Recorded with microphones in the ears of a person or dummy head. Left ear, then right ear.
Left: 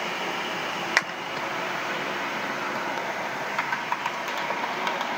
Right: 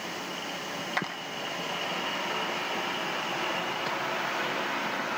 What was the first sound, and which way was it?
A clap, 50° left (ahead or behind).